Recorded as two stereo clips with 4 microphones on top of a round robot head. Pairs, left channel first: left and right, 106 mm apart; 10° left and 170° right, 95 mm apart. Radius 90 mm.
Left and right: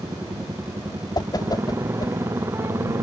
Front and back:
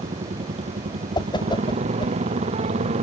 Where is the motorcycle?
165° right; by 3.0 s 160° right.